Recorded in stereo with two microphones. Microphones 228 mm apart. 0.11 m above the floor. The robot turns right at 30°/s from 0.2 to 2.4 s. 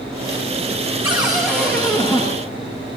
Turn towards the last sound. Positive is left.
turn(degrees=30)